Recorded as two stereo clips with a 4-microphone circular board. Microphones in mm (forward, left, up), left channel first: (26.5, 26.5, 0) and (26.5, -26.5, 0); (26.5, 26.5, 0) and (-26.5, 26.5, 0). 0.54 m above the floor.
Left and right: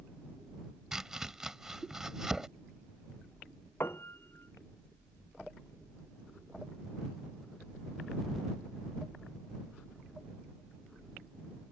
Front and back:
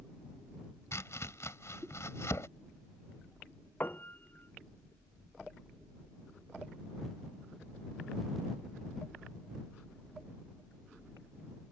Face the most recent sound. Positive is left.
turn(degrees=50)